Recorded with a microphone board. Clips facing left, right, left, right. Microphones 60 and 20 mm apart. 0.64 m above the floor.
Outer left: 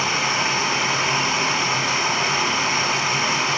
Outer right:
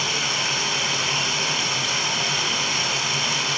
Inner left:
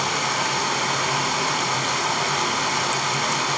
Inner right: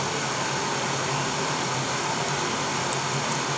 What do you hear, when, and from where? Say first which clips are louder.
0.0 s running water: outer left 4 dB, inner left 5 dB; 35° left (ahead or behind), 4.5 m